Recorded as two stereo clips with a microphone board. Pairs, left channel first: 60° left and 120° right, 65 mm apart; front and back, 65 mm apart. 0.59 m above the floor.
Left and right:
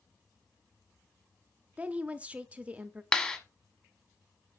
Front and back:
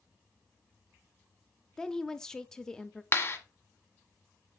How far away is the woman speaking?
About 0.7 m.